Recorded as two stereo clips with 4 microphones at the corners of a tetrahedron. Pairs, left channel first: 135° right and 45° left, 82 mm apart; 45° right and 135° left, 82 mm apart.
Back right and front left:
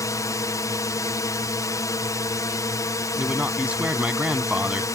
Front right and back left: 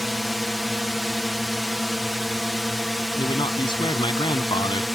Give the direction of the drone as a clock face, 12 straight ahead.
5 o'clock.